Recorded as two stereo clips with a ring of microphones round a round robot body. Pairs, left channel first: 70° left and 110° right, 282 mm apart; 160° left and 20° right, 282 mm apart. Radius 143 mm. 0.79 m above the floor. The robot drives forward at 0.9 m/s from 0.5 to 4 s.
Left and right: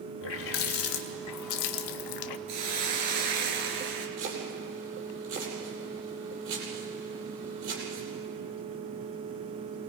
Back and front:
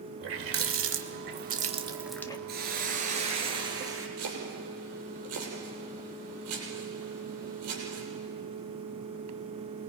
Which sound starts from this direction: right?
A hiss, at 2.5 s.